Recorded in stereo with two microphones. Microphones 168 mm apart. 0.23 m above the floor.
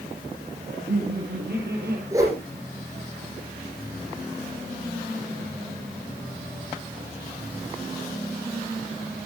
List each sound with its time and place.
0.7 s laughter: 80° right, 7.5 m
2.1 s a whoosh: 20° right (ahead or behind), 8.5 m